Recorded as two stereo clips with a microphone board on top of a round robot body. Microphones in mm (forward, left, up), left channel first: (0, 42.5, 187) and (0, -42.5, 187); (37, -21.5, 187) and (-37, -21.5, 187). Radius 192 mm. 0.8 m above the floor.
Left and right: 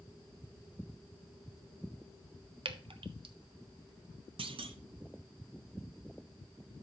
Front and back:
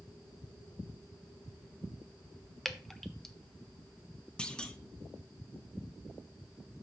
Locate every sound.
2.6 s dripping: 85° right, 0.8 m
4.4 s a clunk: 80° right, 0.7 m